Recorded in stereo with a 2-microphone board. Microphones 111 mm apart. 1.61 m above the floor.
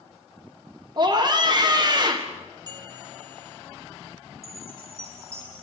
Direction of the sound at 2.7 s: 40° right (ahead or behind).